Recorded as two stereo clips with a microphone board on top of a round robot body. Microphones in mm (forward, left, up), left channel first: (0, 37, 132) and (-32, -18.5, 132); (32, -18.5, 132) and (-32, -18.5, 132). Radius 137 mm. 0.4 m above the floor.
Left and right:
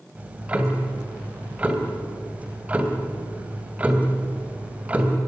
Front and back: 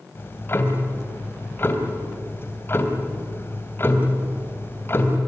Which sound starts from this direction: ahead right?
Ticking, at 0.1 s.